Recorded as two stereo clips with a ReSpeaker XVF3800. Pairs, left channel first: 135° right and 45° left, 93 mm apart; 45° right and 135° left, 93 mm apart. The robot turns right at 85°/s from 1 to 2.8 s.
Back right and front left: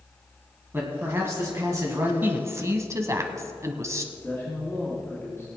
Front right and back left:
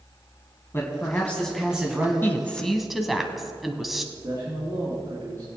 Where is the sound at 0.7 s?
5° right, 1.8 m; by 2.1 s 90° left, 1.8 m.